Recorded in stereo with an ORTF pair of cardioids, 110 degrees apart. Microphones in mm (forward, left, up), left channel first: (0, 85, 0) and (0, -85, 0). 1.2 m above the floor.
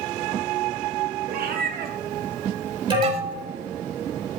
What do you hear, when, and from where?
1.3 s a cat meowing: 70° right, 1.7 m; by 3.5 s 55° right, 0.5 m
2.9 s an alarm: 30° right, 3.5 m